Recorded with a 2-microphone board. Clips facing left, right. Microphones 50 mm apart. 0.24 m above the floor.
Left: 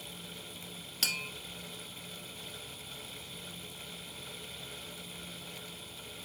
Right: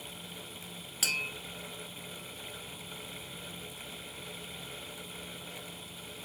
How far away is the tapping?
About 0.9 m.